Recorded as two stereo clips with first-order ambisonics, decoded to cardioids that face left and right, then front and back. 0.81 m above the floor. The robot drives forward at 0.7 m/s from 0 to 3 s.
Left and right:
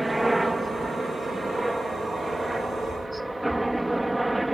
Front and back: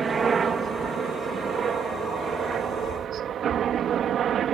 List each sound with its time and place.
0.0 s a helicopter: 165° right; by 4.5 s 170° right